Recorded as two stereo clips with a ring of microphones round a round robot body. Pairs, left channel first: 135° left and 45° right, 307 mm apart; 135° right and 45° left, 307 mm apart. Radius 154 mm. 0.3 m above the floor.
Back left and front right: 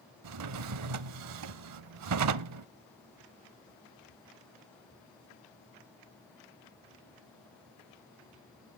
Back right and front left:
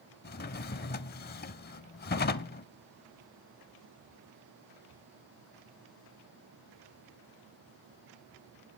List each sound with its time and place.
0.2 s a drawer: 75° right, 0.6 m